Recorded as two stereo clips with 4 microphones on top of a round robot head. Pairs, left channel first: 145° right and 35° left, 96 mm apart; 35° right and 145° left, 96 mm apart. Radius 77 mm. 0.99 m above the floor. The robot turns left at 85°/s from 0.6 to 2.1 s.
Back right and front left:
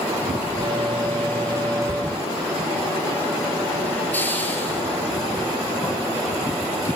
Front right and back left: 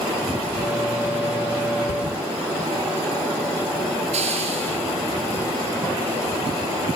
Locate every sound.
1.9 s a thud: 30° right, 1.5 m; by 2.3 s 50° right, 1.5 m
4.1 s a hiss: 145° left, 5.5 m